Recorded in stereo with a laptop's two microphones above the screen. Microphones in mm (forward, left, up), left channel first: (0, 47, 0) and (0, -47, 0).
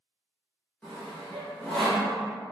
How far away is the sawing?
About 0.9 m.